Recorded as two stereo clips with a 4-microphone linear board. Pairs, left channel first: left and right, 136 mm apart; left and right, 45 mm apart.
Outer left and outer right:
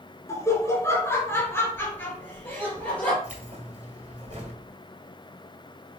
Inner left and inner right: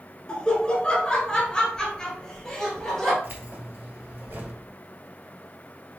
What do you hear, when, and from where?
0.3 s laughter: 20° left (ahead or behind), 1.1 m; by 3.1 s 10° left (ahead or behind), 2 m
3.2 s keys jangling: 50° right (ahead or behind), 1.8 m